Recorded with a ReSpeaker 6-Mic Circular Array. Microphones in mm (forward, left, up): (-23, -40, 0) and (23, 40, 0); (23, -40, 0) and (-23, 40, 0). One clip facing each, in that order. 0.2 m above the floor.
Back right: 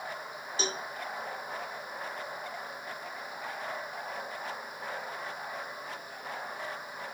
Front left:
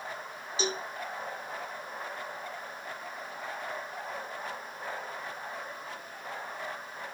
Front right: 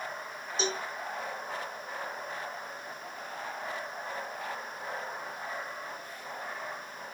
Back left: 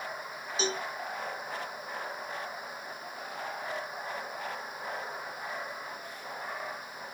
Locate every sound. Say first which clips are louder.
0.6 s a cowbell: front left 3 dB, even; 155° right, 1.0 m